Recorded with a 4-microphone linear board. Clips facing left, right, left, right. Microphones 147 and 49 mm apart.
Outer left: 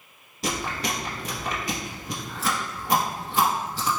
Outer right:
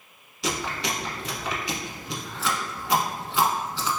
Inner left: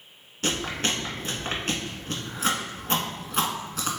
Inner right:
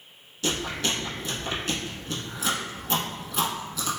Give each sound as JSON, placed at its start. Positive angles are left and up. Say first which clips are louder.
{"t": 0.4, "sound": "chewing", "louder": "even, inner left 1 dB", "side_deg": 45, "distance_m": 0.8}